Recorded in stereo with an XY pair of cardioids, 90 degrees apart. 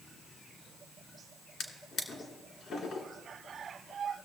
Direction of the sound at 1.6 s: 70° left.